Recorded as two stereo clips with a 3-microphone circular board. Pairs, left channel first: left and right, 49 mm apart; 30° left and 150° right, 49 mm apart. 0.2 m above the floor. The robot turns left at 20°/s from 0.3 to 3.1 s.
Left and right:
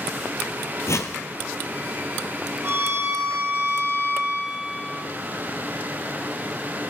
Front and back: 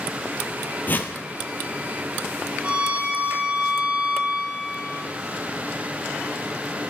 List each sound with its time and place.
0.9 s a whoosh: 80° left, 1.3 m; by 1.1 s 75° left, 1.3 m
2.6 s a violin: 85° right, 6.5 m; by 5.0 s 95° right, 6.5 m